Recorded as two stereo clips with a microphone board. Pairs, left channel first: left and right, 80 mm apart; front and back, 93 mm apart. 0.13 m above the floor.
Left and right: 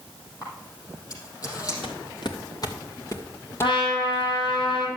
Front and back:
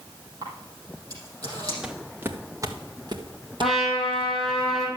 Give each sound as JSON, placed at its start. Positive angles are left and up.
{"t": 0.4, "sound": "a camera shutter", "azimuth_deg": 130, "distance_m": 5.0}
{"t": 1.8, "sound": "footsteps", "azimuth_deg": 95, "distance_m": 1.4}
{"t": 3.6, "sound": "a trumpet", "azimuth_deg": 95, "distance_m": 4.0}